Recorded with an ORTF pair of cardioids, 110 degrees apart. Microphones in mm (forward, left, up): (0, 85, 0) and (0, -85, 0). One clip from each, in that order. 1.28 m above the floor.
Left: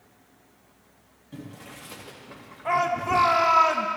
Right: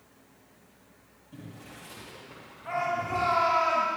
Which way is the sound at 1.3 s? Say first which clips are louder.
Left 4 dB; 40° left.